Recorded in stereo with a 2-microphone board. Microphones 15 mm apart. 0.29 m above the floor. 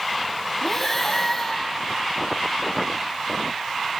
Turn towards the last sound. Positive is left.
turn(degrees=20)  # may be behind; listen again after turning